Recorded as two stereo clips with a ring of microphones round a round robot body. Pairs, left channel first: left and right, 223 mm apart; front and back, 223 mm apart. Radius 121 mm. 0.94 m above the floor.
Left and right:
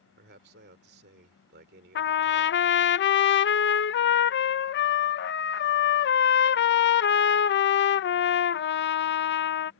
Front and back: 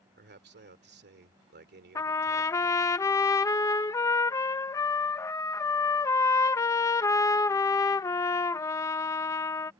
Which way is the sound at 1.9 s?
75° left.